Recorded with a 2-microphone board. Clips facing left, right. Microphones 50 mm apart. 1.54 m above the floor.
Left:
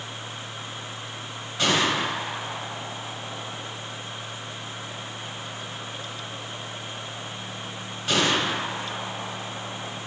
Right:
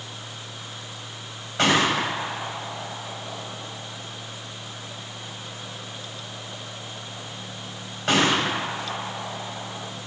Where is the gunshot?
60° right (ahead or behind), 2.5 m.